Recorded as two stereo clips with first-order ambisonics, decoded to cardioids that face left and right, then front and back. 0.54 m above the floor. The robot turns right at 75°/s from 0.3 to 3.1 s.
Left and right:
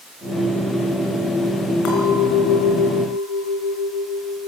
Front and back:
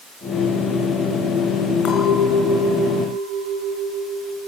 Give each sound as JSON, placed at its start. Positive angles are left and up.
{"t": 1.9, "sound": "a clink", "azimuth_deg": 50, "distance_m": 5.5}